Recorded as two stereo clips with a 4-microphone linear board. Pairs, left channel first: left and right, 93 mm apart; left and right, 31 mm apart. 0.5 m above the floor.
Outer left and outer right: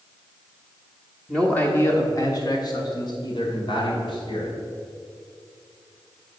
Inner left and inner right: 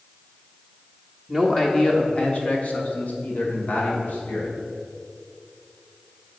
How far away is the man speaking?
About 1.0 m.